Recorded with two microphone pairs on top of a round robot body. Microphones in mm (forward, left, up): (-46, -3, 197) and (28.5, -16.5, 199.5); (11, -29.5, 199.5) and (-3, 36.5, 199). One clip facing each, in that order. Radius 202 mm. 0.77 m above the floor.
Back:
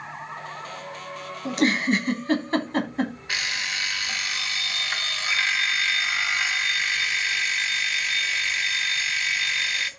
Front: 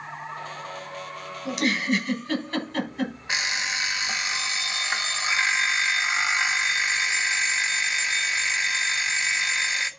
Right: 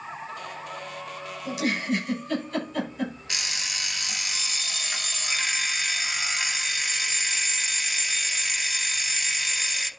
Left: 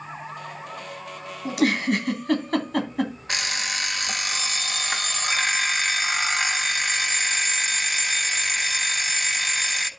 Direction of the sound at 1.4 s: 125° left.